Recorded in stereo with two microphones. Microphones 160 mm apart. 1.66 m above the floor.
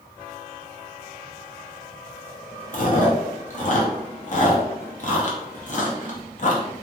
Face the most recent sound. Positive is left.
turn(degrees=50)  # may be behind; listen again after turning